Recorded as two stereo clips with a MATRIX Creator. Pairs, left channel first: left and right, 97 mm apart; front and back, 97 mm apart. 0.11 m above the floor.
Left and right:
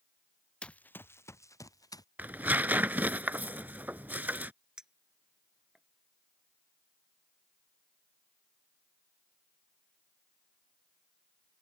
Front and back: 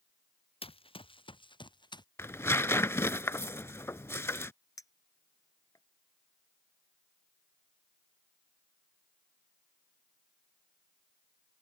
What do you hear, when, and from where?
0.6 s running footsteps: 10° left; by 2.0 s 40° left
2.2 s tearing paper: 35° right
4.8 s a clink: 10° right